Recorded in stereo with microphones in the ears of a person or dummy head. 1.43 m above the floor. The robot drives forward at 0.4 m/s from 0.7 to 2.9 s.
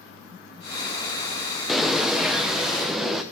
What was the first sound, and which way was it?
A bird, centre (ahead or behind).